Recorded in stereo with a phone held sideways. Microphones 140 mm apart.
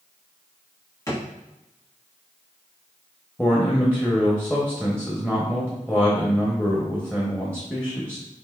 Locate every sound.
1.1 s a drawer: 20° left (ahead or behind), 1.5 m
3.4 s a man speaking: 10° left (ahead or behind), 0.8 m